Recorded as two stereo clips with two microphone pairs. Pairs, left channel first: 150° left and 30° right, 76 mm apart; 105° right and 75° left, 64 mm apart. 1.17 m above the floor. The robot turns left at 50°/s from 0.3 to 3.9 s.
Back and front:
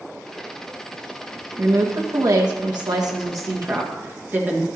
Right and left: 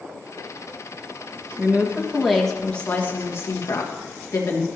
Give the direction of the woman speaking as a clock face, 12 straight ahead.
11 o'clock.